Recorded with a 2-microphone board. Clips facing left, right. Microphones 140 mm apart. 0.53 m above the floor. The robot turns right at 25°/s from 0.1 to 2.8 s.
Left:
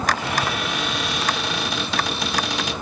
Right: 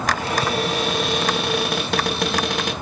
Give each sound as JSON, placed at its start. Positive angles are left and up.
{"t": 0.2, "sound": "a cupboard door", "azimuth_deg": -140, "distance_m": 2.0}